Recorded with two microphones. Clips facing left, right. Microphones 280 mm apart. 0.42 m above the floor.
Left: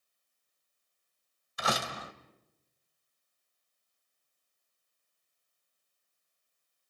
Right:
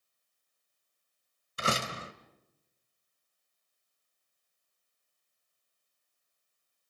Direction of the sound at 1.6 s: 30° right (ahead or behind).